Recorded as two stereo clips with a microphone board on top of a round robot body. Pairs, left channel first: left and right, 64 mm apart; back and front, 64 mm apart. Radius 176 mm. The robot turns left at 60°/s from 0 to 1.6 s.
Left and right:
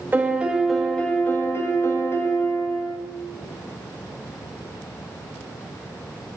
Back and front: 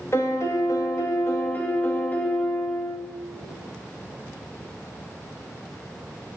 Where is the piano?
145° right, 1.3 m; by 3.0 s 125° left, 1.3 m.